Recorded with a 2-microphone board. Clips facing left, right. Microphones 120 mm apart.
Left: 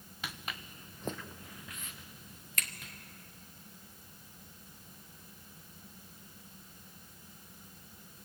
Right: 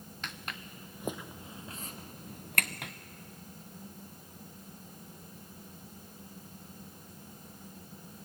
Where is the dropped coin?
No dropped coin in this recording.